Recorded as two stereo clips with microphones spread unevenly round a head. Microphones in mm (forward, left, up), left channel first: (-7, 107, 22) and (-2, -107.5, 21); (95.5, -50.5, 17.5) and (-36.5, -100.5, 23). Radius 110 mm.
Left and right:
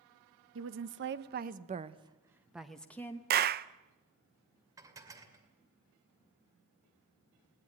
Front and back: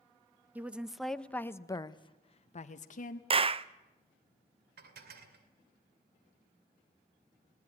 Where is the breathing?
No breathing in this recording.